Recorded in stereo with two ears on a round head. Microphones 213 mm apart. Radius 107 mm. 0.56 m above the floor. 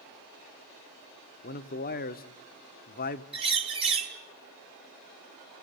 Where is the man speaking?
40° left (ahead or behind), 1.1 m.